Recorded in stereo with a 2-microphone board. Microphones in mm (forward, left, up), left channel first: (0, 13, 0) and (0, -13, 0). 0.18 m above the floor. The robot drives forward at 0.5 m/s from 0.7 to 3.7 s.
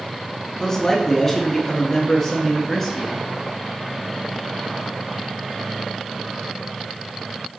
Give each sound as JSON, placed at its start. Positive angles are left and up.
{"t": 0.6, "sound": "a man speaking", "side_deg": 15, "distance_m": 1.3}